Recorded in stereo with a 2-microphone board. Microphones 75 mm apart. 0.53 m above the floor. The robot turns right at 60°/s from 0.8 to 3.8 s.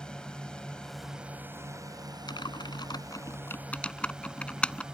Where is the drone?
170° left; by 4.9 s 10° right.